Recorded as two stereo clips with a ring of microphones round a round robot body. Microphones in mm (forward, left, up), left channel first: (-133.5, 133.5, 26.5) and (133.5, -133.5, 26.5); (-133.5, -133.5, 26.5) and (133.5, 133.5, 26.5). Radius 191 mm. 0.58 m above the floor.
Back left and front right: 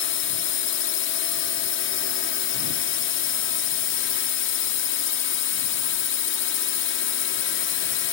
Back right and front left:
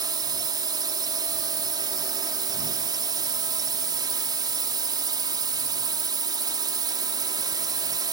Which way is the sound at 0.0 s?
115° left.